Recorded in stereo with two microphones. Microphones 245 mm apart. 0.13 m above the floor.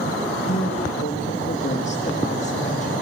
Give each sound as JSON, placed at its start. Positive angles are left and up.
{"t": 0.5, "sound": "a woman speaking", "side_deg": 30, "distance_m": 4.5}